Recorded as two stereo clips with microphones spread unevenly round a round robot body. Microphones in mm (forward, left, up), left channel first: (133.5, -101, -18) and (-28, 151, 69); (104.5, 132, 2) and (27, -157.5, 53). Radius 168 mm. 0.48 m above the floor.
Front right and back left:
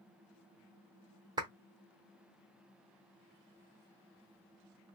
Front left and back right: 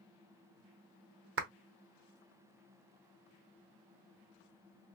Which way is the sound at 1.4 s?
145° right.